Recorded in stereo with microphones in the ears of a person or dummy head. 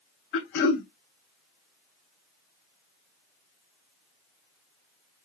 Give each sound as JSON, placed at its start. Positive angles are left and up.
{"t": 0.3, "sound": "throat clearing", "side_deg": 70, "distance_m": 1.9}